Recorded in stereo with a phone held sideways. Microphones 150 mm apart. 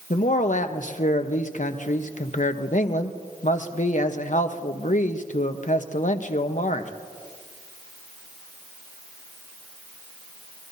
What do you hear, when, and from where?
0.1 s a man speaking: 60° left (ahead or behind), 0.9 m